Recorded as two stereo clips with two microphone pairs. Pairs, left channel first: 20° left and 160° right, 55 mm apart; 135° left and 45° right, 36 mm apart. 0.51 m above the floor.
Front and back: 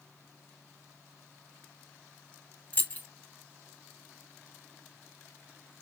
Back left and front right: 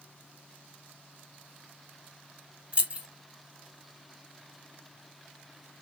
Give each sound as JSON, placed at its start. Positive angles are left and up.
{"t": 2.7, "sound": "keys jangling", "azimuth_deg": -20, "distance_m": 0.8}